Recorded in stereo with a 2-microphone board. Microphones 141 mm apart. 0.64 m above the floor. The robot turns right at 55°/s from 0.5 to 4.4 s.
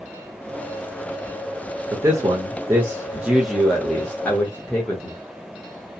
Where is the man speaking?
20° right (ahead or behind), 0.8 m; by 5.1 s 15° left (ahead or behind), 0.8 m.